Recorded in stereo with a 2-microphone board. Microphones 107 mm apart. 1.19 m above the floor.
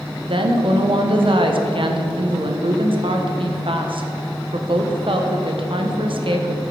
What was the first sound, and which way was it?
A woman speaking, 60° right (ahead or behind).